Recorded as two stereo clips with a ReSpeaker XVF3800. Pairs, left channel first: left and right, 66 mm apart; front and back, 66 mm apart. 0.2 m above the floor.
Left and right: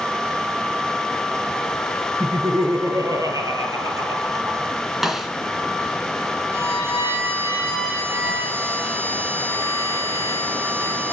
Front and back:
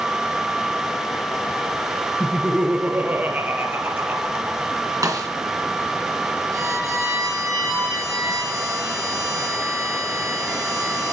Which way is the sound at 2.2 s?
100° right.